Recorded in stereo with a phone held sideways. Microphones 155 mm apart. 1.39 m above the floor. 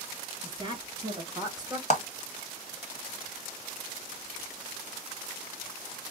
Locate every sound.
0.4 s a woman speaking: 30° right (ahead or behind), 3.5 m; by 1.8 s 20° right (ahead or behind), 1.5 m
1.9 s a clap: 45° left (ahead or behind), 1.1 m